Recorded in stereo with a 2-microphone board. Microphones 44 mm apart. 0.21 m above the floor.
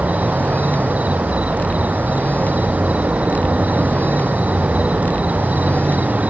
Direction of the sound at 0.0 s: 30° right (ahead or behind).